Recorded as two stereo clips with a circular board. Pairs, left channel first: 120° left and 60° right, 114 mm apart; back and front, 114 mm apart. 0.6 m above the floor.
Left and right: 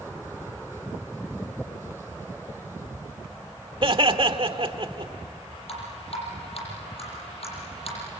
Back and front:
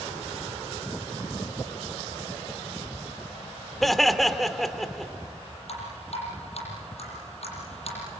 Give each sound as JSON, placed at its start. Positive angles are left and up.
{"t": 3.8, "sound": "laughter", "azimuth_deg": -90, "distance_m": 1.7}
{"t": 5.7, "sound": "dripping", "azimuth_deg": 150, "distance_m": 7.5}